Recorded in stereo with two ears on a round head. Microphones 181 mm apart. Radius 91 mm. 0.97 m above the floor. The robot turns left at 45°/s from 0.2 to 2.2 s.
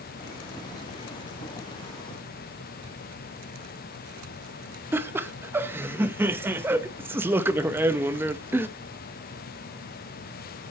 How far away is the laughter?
About 0.7 m.